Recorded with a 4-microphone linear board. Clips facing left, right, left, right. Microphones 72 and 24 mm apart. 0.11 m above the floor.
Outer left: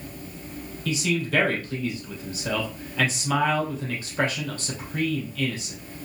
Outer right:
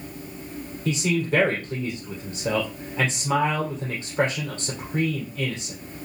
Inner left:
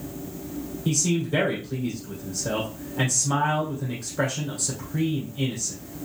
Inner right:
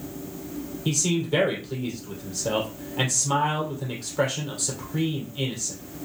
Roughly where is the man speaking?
Right.